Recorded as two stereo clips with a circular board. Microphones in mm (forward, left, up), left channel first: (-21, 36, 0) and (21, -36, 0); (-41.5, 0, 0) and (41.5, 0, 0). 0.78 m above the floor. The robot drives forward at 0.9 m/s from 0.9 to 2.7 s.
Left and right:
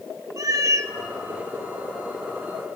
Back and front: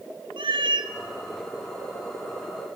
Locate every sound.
0.4 s a cat meowing: 10° right, 1.0 m